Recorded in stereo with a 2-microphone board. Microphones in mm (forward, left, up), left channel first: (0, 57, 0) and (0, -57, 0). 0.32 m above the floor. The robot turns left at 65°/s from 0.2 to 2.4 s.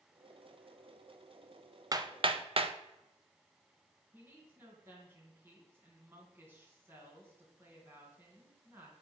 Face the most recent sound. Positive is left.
turn(degrees=-20)  # may be behind; listen again after turning